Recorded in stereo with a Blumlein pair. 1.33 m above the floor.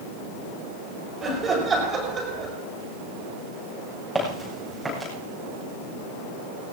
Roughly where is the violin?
I don't hear a violin.